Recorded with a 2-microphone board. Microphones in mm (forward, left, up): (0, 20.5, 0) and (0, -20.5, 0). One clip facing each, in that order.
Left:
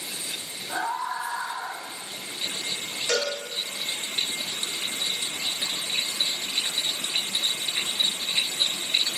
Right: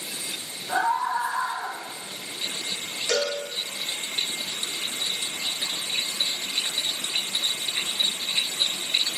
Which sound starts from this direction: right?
A scream, at 0.7 s.